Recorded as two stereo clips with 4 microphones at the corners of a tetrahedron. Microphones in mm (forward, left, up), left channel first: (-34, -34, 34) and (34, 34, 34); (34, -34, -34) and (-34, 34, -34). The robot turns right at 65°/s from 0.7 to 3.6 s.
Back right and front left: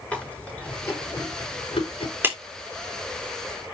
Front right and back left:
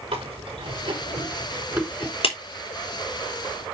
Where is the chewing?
150° left, 5 m; by 2.1 s 115° right, 5 m.